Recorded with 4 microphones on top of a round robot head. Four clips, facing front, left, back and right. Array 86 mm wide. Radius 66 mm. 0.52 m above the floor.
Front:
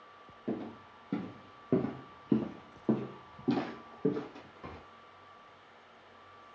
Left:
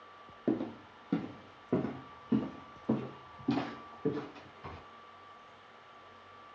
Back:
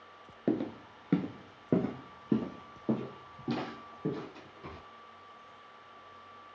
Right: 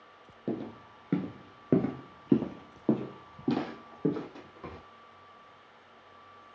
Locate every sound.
0.5 s footsteps: 165° left, 0.6 m; by 4.8 s 70° right, 2.0 m